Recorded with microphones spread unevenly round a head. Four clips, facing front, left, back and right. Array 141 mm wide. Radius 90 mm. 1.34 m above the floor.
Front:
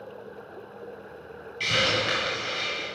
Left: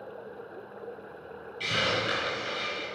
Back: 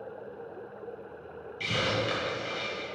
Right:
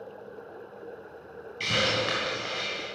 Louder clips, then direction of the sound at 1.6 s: Right 1 dB, front 3 dB; 110° right.